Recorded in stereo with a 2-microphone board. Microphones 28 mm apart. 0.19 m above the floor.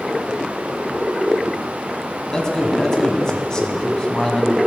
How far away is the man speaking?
About 1.1 m.